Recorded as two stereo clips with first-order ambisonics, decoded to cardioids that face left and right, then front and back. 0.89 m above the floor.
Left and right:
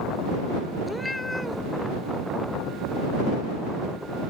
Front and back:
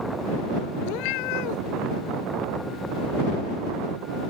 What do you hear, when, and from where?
0.8 s a cat meowing: 5° left